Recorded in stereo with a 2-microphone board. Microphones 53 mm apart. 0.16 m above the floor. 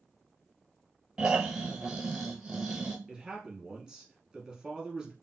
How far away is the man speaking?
About 1.8 m.